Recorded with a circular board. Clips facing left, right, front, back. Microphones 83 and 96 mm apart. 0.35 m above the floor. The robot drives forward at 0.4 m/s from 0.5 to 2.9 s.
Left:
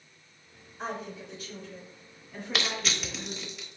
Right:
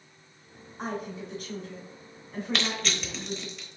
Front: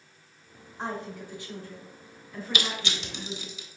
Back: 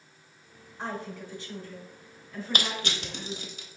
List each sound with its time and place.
0.8 s a woman speaking: 70° right, 2.5 m; by 3.5 s 90° right, 2.5 m
2.5 s crushing: 175° left, 0.9 m